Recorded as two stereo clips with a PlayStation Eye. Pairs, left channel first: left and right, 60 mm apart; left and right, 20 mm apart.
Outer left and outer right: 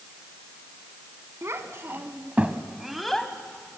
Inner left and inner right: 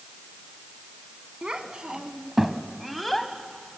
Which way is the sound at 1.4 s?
50° right (ahead or behind).